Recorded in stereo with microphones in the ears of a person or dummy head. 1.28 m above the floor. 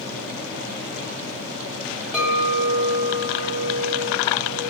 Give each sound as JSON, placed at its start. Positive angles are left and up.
{"t": 2.1, "sound": "a clink", "side_deg": 0, "distance_m": 1.2}